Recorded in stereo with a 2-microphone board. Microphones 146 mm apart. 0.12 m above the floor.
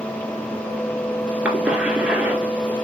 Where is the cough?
10° right (ahead or behind), 1.9 m.